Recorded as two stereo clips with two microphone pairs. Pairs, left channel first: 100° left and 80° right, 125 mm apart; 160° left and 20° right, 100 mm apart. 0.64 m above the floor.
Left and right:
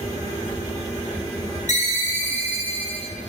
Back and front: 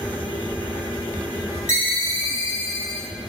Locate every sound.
1.7 s a ringtone: 100° left, 0.6 m